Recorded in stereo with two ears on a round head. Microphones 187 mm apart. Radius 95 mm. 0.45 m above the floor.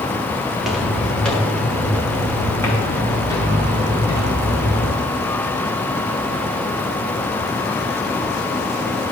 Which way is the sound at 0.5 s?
5° right (ahead or behind).